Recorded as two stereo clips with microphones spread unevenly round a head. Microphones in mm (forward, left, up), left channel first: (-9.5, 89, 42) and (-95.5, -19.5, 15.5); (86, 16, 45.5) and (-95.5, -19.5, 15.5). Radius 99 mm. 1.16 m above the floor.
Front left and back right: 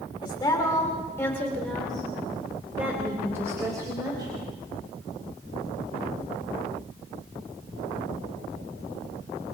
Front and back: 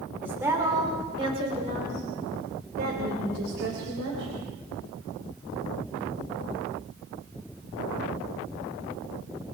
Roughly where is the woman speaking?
Left.